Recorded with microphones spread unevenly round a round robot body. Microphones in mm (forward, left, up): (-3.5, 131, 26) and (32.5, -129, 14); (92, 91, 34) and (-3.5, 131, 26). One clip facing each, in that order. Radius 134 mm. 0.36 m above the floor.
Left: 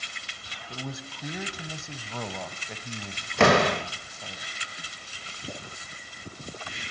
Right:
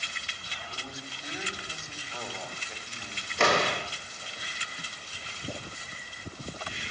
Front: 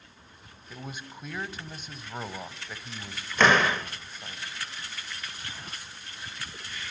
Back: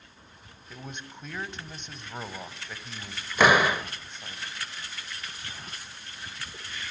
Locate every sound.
0.7 s a man speaking: 65° left, 1.8 m
3.4 s a door slam: 80° left, 1.3 m